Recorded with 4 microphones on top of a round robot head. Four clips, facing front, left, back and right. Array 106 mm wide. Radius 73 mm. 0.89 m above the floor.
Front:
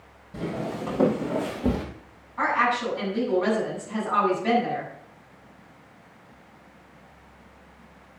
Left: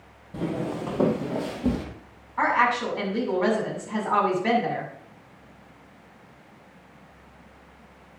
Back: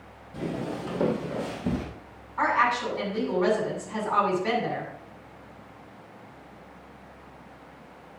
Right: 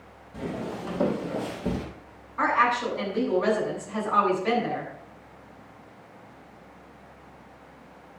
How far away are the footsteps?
About 2.5 m.